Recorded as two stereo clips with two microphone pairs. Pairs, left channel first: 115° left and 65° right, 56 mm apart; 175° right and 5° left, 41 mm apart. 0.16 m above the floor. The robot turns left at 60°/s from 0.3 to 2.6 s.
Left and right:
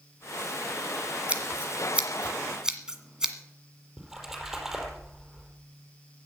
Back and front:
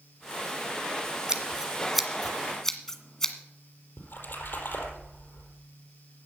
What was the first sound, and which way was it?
Scissors, 45° right.